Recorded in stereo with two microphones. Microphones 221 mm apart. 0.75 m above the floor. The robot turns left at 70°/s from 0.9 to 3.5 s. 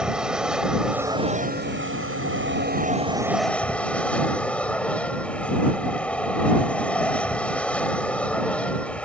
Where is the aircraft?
5° right; by 9.1 s 175° left.